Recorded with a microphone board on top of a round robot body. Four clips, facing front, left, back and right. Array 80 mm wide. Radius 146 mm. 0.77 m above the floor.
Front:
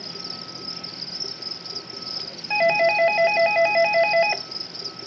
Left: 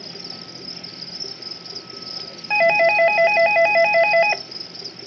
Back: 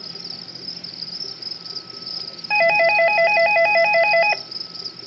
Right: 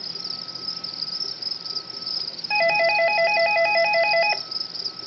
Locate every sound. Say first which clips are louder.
0.0 s an insect: left 4 dB, front 3 dB; 75° left, 0.8 m
2.5 s a doorbell: left 4 dB, back 2 dB; 135° left, 0.8 m